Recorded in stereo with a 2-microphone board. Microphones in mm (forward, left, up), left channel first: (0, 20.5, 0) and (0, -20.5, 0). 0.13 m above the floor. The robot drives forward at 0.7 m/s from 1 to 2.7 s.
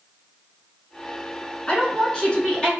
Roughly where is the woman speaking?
Left.